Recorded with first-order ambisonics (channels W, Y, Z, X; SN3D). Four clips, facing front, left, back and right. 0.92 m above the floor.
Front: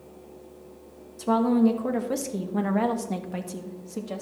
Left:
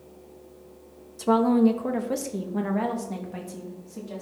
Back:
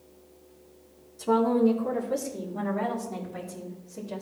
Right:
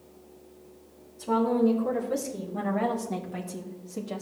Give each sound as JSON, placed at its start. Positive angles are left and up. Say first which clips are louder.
{"t": 1.2, "sound": "a woman speaking", "louder": "left 4 dB, front 1 dB", "azimuth_deg": 75, "distance_m": 1.3}